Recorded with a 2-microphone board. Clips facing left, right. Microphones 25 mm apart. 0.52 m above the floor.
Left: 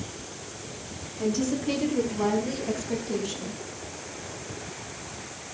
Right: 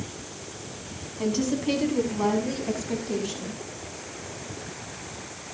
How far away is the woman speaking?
About 4.5 m.